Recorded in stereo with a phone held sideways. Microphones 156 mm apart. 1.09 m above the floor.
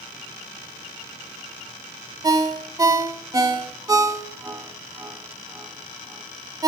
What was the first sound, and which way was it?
A ringtone, 25° right (ahead or behind).